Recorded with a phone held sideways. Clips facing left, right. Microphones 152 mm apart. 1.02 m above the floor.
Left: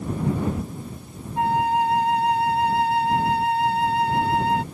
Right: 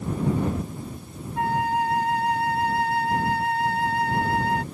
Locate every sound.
1.4 s a flute: 25° left (ahead or behind)